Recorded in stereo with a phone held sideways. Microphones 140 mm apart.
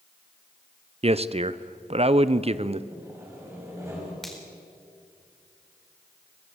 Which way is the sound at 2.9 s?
20° right (ahead or behind).